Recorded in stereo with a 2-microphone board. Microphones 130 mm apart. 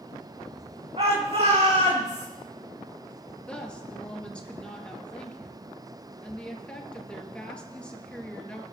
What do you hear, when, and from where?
1.0 s a shout: 50° right (ahead or behind), 4.5 m; by 2.3 s 60° right (ahead or behind), 5.5 m
3.5 s a woman speaking: 10° left (ahead or behind), 2 m